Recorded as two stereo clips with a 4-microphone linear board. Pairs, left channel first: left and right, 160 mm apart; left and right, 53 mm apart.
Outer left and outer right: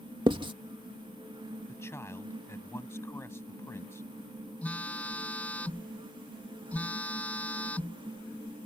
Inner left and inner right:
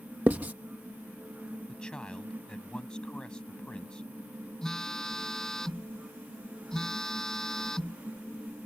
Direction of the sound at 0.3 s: 30° right (ahead or behind).